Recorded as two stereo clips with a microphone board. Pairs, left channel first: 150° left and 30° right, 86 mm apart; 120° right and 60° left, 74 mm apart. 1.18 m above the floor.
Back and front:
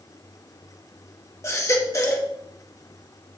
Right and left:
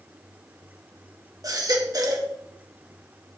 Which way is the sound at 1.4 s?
100° left.